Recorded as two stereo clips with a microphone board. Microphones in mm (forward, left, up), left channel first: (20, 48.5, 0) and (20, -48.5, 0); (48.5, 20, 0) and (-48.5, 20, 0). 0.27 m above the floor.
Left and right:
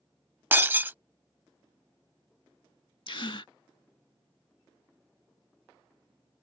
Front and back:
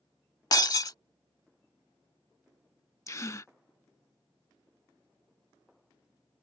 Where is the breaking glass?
30° right.